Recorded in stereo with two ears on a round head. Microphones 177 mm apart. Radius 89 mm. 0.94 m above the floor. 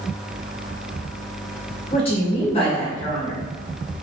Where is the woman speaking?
30° left (ahead or behind), 1.2 m.